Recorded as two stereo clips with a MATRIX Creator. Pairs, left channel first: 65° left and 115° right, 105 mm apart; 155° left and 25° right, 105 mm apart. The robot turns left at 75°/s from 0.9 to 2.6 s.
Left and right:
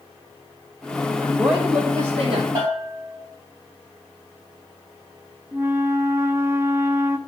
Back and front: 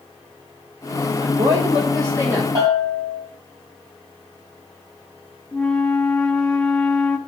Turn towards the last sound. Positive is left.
turn(degrees=-135)